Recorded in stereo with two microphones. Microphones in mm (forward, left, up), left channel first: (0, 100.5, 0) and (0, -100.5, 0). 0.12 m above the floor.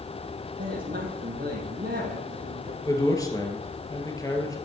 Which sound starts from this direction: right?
A man speaking, at 0.6 s.